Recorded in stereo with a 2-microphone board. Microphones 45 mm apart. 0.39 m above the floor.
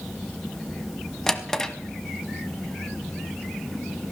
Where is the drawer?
10° left (ahead or behind), 1.0 m.